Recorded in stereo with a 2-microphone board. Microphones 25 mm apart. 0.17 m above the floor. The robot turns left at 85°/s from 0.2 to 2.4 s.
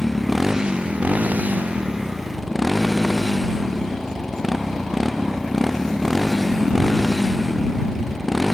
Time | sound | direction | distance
0.0 | a motorcycle | 5° left | ?